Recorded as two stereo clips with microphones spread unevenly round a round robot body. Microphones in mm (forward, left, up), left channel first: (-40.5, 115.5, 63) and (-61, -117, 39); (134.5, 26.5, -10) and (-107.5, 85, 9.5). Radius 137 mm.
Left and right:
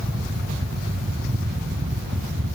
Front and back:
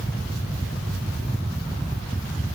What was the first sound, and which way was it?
Only background noise.